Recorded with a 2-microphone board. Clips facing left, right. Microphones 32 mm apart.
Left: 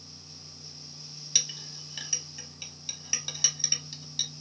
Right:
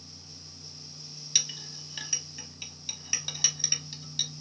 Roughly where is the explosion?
I don't hear an explosion.